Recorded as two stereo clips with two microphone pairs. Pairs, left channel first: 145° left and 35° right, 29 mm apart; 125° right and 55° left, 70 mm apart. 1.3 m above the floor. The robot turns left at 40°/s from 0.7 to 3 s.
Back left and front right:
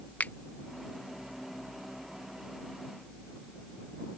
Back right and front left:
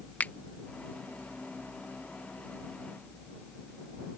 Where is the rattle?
No rattle in this recording.